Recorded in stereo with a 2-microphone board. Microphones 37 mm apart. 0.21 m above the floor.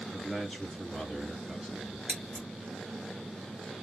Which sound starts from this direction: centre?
A man speaking, at 0.1 s.